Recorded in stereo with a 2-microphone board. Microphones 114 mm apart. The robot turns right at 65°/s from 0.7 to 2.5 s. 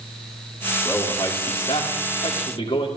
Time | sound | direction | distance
0.8 | a man speaking | 20° left | 2.5 m